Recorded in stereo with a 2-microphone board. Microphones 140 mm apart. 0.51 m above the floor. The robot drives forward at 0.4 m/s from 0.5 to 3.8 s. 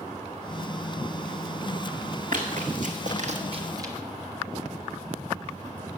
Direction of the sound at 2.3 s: 70° right (ahead or behind).